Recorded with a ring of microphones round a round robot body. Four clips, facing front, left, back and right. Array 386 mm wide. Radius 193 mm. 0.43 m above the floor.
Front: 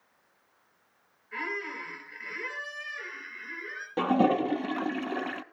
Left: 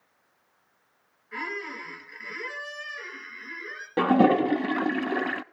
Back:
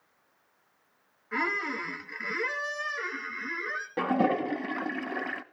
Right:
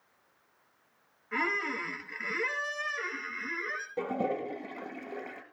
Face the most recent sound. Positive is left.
turn(degrees=85)